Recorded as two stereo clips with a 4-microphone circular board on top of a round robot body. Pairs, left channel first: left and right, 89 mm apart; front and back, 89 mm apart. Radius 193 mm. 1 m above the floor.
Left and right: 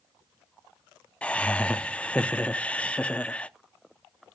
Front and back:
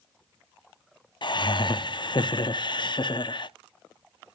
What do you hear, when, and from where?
1.2 s laughter: 15° left, 0.9 m